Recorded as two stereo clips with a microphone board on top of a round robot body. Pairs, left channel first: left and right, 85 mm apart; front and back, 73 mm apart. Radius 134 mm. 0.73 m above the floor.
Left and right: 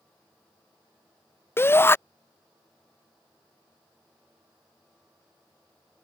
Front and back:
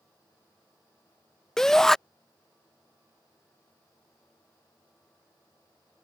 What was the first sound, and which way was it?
A shout, 75° left.